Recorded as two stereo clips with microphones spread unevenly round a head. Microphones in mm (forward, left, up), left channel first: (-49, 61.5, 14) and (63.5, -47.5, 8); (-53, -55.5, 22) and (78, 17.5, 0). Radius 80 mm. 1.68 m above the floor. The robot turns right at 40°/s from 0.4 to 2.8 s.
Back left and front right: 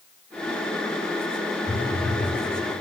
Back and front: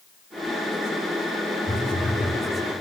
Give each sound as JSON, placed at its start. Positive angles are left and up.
{"t": 1.7, "sound": "a phone buzzing", "azimuth_deg": -95, "distance_m": 1.7}